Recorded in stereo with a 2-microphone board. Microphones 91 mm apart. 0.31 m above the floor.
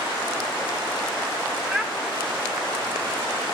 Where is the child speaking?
10° right (ahead or behind), 1.4 m.